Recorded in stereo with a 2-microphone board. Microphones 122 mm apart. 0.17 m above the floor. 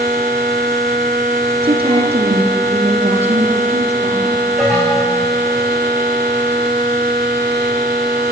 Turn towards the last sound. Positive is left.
turn(degrees=-5)  # may be behind; listen again after turning